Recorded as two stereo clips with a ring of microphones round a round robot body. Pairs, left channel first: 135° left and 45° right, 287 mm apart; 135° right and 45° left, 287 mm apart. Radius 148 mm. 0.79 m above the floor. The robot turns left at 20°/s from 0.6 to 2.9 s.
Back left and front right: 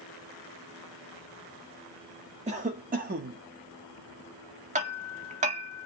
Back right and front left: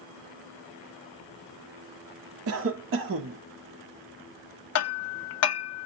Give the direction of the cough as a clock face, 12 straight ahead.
11 o'clock.